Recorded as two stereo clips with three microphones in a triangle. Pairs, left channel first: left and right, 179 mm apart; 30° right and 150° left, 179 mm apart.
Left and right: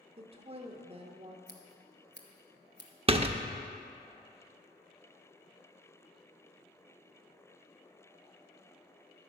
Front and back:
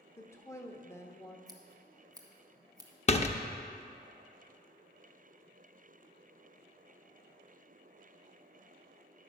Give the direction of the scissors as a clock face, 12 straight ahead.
9 o'clock.